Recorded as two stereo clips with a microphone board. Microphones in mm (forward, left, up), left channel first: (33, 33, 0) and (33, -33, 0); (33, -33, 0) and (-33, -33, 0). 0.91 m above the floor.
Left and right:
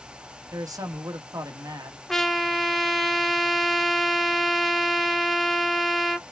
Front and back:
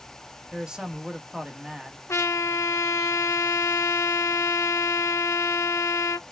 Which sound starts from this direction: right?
A man speaking, at 0.5 s.